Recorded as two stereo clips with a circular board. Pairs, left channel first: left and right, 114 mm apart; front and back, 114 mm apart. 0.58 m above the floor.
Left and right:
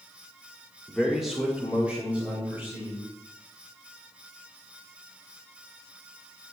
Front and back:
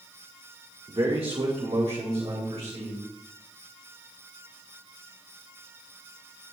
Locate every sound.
0.9 s a man speaking: 175° left, 1.4 m; by 3.0 s 160° right, 4 m